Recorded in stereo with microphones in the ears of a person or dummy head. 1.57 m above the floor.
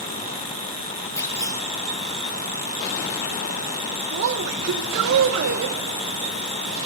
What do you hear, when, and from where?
1.2 s a clunk: 15° left (ahead or behind), 4 m
4.1 s a woman speaking: 65° right (ahead or behind), 1.9 m